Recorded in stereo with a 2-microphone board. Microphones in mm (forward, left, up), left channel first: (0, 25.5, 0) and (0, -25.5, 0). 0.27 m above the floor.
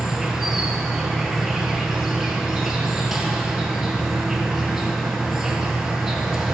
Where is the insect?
5° right (ahead or behind), 1.9 m.